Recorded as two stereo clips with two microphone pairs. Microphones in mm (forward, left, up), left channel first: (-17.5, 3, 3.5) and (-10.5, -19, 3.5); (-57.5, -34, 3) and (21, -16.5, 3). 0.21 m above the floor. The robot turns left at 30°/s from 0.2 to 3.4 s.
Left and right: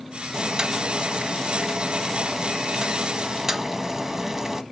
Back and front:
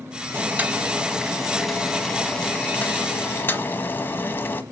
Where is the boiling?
40° right, 1.2 m; by 4.6 s 130° right, 1.2 m.